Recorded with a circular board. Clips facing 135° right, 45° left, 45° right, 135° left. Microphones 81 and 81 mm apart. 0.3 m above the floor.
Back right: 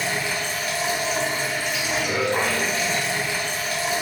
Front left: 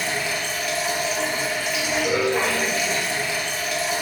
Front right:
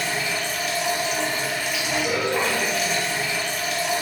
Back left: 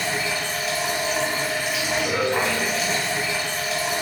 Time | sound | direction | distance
0.0 | running water | 175° right | 1.1 m